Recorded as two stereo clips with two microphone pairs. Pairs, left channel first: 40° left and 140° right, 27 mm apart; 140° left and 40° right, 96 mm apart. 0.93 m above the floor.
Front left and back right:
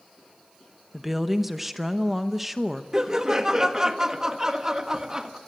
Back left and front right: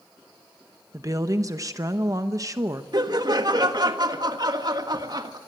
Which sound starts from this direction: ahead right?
A woman speaking, at 0.9 s.